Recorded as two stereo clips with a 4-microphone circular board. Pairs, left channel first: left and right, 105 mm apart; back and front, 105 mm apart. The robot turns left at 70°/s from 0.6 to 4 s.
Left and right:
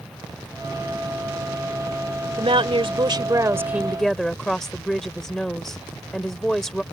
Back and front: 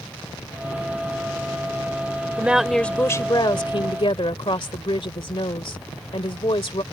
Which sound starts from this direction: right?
A woman speaking, at 2.4 s.